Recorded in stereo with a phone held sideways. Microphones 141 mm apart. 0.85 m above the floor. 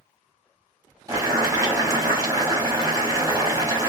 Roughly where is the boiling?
Right.